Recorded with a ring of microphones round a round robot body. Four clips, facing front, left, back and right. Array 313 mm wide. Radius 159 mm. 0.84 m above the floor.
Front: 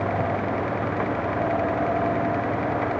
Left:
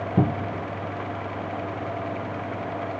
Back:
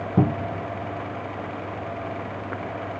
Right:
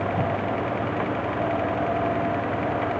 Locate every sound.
0.2 s a cupboard door: 145° left